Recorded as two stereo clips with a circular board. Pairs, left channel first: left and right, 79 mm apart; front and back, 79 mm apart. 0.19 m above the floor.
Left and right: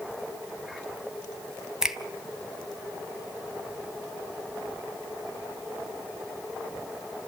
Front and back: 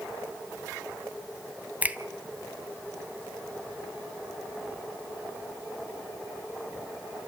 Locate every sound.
1.8 s a finger snap: 160° right, 0.8 m